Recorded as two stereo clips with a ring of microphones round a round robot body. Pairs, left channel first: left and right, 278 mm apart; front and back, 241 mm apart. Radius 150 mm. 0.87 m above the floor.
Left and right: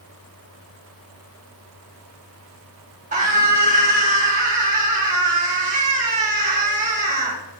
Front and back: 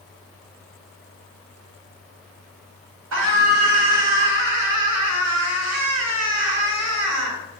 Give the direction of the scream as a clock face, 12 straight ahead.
5 o'clock.